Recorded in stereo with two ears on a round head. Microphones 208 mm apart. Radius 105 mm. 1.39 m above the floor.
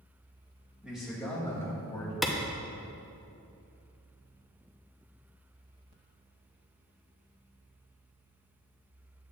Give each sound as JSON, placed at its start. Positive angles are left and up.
{"t": 0.8, "sound": "a man speaking", "side_deg": -5, "distance_m": 2.0}
{"t": 2.2, "sound": "a clap", "side_deg": 0, "distance_m": 0.6}